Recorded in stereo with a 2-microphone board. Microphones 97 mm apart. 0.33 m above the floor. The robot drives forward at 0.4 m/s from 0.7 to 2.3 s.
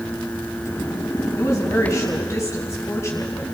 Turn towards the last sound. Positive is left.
turn(degrees=30)  # may be behind; listen again after turning